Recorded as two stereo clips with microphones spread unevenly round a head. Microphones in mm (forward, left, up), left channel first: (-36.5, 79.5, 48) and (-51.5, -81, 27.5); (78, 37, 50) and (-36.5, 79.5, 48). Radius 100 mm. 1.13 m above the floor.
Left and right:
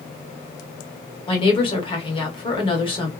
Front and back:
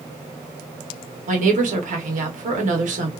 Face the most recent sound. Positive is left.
turn(degrees=145)